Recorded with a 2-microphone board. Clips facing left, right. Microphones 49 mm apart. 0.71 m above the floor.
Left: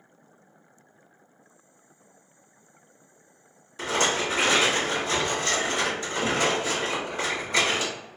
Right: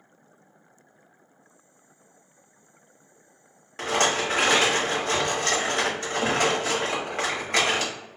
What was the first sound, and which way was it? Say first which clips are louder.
A rattle: right 1 dB; 55° right (ahead or behind).